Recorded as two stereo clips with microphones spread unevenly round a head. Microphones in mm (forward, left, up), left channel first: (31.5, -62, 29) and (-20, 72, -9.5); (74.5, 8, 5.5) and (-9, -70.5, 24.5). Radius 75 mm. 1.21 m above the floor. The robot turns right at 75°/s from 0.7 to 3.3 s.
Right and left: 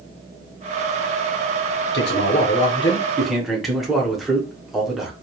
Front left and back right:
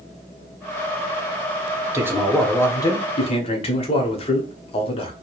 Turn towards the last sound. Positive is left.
turn(degrees=30)